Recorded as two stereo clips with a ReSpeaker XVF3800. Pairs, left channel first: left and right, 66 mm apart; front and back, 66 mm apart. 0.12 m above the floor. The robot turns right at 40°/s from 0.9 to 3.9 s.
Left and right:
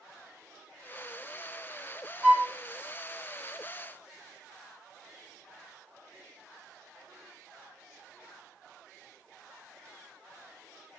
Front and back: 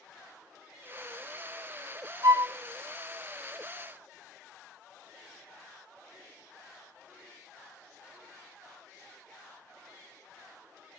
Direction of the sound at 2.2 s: 165° right.